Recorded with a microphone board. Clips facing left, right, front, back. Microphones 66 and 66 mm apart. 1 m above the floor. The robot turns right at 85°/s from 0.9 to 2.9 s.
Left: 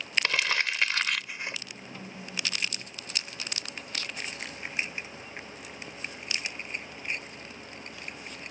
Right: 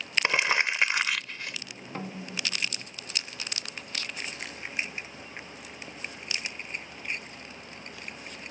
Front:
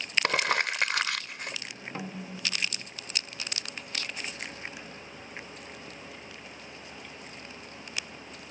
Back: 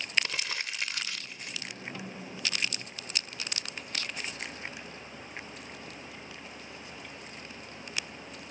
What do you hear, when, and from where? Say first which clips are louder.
0.2 s crumpling: right 4 dB, front 10 dB; 20° right; by 1.6 s 35° left
1.9 s a snare drum: right 4 dB, front 3 dB; 55° right; by 2.9 s 25° left